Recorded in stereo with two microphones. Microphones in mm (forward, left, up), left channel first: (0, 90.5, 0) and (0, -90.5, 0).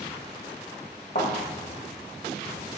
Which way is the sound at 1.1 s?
50° left (ahead or behind).